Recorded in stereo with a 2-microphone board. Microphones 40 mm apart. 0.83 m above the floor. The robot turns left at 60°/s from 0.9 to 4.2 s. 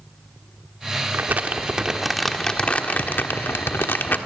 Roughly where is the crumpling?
Behind right.